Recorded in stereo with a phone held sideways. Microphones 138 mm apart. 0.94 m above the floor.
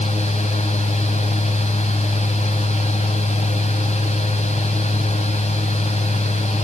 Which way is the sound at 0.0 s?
50° left (ahead or behind).